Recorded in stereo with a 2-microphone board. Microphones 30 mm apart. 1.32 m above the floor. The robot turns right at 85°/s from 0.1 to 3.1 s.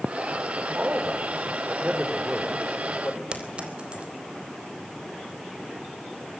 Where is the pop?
I don't hear a pop.